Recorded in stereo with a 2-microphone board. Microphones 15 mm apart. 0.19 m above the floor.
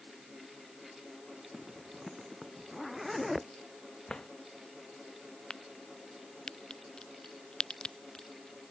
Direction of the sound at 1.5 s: 5° right (ahead or behind).